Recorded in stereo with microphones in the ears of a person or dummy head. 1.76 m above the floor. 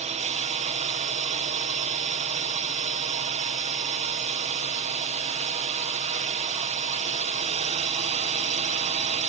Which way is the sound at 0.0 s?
40° right (ahead or behind).